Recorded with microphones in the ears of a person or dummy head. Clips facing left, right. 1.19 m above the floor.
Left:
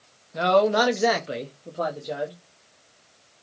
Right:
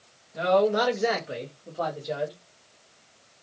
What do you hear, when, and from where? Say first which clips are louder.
0.3 s a man speaking: left 2 dB; 65° left (ahead or behind), 0.7 m; by 2.3 s 5° left (ahead or behind), 0.8 m